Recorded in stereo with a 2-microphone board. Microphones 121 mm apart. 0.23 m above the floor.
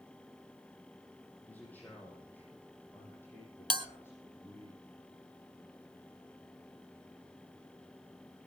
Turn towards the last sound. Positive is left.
turn(degrees=-40)  # may be behind; listen again after turning